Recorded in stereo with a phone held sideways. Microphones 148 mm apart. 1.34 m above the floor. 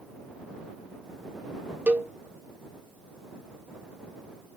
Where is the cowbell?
10° right (ahead or behind).